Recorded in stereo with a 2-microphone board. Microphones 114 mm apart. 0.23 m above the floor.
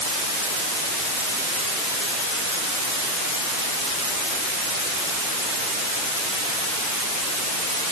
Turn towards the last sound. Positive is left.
No sound to turn to.